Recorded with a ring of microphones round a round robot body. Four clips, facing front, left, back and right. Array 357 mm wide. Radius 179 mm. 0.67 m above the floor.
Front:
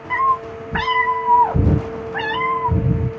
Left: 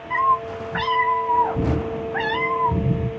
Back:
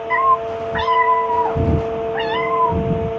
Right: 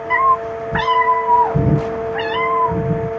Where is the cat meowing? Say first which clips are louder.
Right 4 dB, back 2 dB; 75° right, 0.9 m; by 3.1 s 5° right, 1.8 m.